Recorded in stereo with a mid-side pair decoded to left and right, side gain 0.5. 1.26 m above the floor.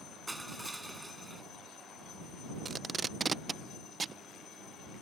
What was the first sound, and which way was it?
Crushing, 10° right.